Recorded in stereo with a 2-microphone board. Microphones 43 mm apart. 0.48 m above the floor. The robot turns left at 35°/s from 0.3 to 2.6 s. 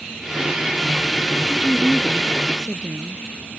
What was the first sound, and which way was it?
A woman speaking, 135° right.